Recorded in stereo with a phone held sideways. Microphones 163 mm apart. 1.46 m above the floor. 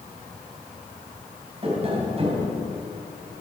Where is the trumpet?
I don't hear a trumpet.